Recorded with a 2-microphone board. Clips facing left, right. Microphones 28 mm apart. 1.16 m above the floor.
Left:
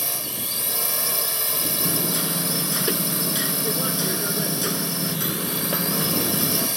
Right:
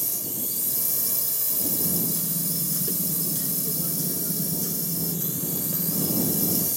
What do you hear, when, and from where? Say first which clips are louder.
0.0 s a drone: left 5 dB; 55° left (ahead or behind)
1.8 s hammering: left 6 dB; 65° left (ahead or behind)